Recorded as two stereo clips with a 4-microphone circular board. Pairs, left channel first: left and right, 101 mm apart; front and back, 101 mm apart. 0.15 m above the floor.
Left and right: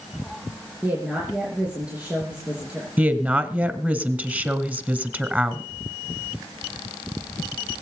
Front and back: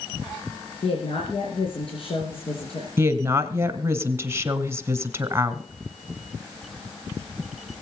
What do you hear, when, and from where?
0.8 s a woman speaking: 15° right, 3 m
3.0 s a woman speaking: 150° right, 1.5 m